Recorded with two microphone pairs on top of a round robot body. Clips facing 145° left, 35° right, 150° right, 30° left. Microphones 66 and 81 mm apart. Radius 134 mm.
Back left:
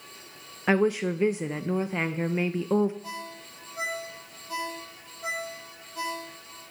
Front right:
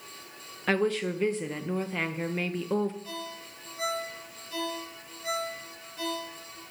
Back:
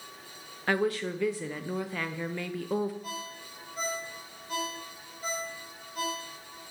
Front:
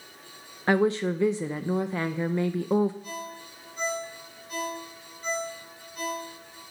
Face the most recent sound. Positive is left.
turn(degrees=160)